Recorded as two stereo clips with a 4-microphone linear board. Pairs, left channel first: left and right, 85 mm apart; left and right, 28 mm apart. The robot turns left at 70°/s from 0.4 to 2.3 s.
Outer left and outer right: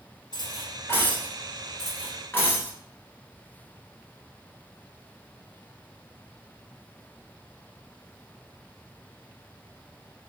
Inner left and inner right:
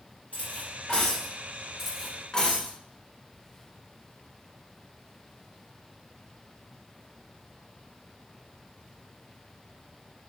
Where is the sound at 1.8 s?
175° right, 1.2 m; by 2.8 s 150° left, 1.2 m.